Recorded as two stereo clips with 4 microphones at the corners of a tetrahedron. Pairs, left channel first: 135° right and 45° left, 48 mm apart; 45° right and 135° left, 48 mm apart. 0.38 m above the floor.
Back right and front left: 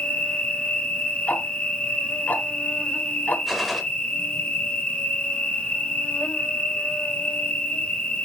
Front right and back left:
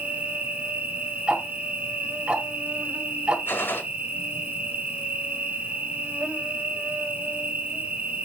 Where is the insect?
175° left, 1.6 m.